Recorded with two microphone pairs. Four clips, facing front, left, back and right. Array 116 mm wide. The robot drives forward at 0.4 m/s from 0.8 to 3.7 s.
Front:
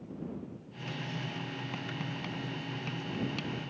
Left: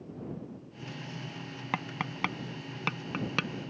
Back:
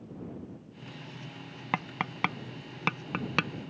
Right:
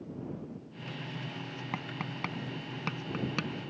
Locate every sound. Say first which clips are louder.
1.7 s tapping: left 5 dB, back 5 dB; 155° left; by 3.5 s 165° left